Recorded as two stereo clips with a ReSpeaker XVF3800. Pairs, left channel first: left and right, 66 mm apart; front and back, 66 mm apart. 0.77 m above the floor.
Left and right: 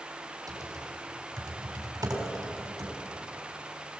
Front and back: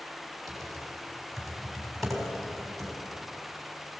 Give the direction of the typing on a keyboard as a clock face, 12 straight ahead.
3 o'clock.